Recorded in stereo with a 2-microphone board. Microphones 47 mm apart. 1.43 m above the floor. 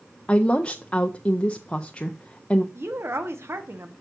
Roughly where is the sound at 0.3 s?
Left.